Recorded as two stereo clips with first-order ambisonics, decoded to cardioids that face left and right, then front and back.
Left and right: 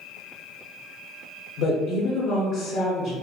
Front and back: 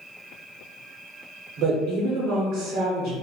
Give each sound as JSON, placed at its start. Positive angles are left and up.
{"t": 1.6, "sound": "a woman speaking", "azimuth_deg": 135, "distance_m": 0.7}